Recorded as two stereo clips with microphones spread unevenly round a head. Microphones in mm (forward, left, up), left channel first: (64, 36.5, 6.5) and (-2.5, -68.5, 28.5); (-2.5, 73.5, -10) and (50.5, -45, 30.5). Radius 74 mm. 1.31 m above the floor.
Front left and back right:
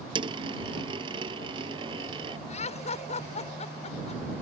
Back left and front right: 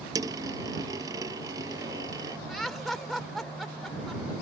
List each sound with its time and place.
0.1 s a dropped coin: 100° right
2.5 s laughter: 25° left